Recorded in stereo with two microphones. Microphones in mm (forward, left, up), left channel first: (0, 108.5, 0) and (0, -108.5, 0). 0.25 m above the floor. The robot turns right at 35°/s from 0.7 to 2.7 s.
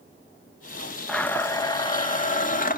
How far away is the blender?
About 0.9 m.